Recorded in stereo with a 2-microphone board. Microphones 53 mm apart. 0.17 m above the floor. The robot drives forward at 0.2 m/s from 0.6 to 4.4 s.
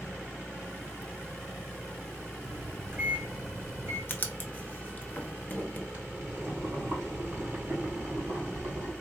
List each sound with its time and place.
2.5 s a microwave: 40° right (ahead or behind), 1.8 m
4.1 s writing: 35° left (ahead or behind), 0.7 m
5.9 s boiling: 30° right (ahead or behind), 1.8 m